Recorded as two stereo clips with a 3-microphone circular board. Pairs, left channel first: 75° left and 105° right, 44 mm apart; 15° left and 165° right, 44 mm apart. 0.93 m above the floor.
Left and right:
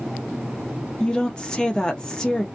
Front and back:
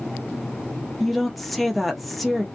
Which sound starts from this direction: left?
A woman speaking, at 1.0 s.